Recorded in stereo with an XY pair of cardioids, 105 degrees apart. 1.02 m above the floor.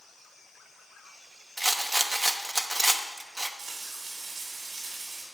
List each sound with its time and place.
1.6 s a rattle: 10° right, 0.9 m
3.6 s frying: 65° right, 4.5 m